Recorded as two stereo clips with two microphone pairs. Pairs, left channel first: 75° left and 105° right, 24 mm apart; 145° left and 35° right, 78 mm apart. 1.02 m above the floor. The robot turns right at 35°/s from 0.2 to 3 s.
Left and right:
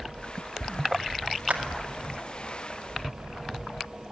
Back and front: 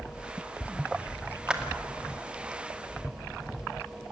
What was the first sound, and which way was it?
A clap, 110° right.